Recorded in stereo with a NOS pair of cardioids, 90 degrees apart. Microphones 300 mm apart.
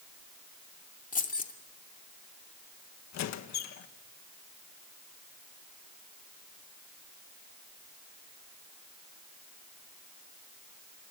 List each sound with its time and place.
1.1 s keys jangling: 30° left, 2.5 m
3.1 s a squeak: 70° left, 1.4 m